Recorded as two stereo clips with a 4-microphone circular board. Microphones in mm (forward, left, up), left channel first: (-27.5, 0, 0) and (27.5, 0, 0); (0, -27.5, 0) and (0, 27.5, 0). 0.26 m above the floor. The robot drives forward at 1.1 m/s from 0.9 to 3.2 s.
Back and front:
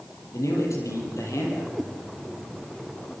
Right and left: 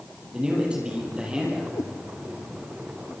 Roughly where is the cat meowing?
Right.